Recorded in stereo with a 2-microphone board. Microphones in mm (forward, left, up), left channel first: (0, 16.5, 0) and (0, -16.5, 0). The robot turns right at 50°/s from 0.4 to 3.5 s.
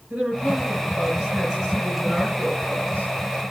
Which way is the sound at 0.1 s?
55° right.